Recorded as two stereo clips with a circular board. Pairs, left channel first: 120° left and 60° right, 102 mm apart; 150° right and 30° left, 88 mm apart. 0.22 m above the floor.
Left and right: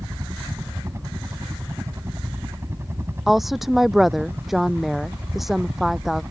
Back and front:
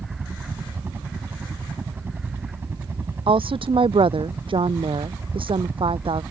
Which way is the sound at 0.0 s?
20° right.